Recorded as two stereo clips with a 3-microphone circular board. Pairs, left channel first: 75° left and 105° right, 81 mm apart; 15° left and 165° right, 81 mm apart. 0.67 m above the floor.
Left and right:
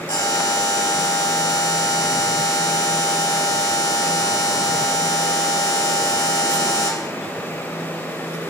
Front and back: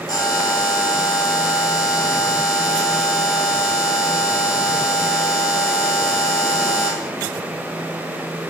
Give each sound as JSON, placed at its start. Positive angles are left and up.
{"t": 0.1, "sound": "a buzzer", "azimuth_deg": 55, "distance_m": 2.5}